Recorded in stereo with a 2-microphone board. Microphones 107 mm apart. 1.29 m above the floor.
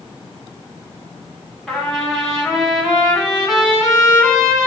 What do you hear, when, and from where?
1.7 s a trumpet: centre (ahead or behind), 2.5 m